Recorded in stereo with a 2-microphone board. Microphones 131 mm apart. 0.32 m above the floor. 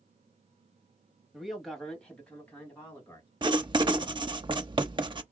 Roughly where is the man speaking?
Centre.